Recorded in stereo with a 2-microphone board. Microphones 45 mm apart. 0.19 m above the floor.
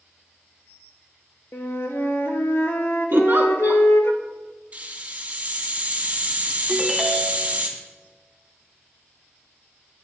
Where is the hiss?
35° right (ahead or behind), 1.9 m.